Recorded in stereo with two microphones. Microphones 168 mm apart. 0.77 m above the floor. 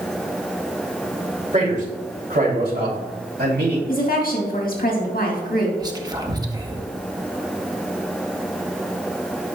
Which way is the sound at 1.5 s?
50° right (ahead or behind).